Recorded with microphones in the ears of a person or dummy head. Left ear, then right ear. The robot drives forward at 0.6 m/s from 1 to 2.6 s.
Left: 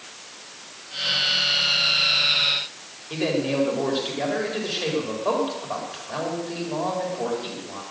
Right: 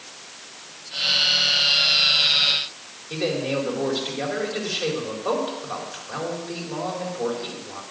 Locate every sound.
3.1 s a man speaking: centre (ahead or behind), 4.5 m